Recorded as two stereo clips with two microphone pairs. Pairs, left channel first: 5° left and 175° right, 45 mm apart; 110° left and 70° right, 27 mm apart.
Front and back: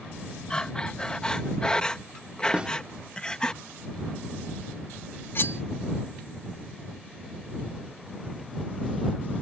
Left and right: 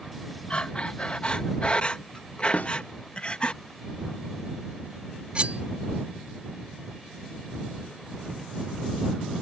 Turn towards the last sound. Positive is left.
turn(degrees=-25)